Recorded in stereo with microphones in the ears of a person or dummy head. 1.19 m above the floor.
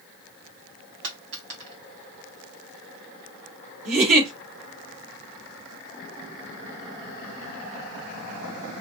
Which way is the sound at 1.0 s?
75° right (ahead or behind).